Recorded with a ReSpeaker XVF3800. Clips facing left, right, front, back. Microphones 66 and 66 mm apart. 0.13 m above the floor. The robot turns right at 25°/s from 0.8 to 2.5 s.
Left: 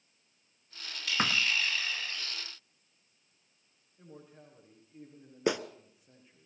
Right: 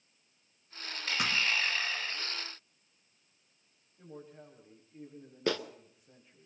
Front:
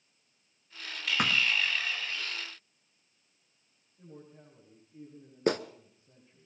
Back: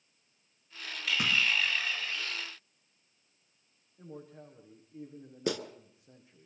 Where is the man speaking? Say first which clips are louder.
Right 3 dB, back 4 dB; 175° left, 9.5 m.